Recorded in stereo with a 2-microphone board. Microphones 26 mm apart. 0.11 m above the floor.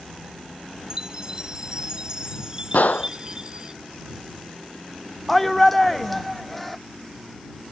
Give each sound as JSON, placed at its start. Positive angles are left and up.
{"t": 0.9, "sound": "a chime", "side_deg": -25}
{"t": 2.7, "sound": "a gunshot", "side_deg": 70}
{"t": 5.3, "sound": "a shout", "side_deg": 5}